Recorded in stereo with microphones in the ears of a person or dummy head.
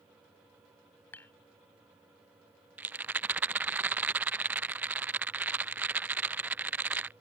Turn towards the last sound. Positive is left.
turn(degrees=-10)  # may be behind; listen again after turning